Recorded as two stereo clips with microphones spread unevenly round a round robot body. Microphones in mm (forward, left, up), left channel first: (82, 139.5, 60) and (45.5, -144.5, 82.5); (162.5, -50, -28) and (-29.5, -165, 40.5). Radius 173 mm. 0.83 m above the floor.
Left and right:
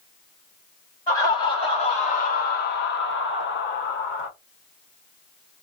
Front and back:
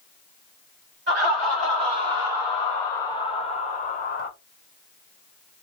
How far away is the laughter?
About 1.2 m.